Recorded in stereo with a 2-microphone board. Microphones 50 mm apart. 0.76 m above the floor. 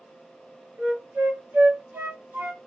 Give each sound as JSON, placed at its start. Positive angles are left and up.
{"t": 0.8, "sound": "a flute", "side_deg": -55, "distance_m": 1.7}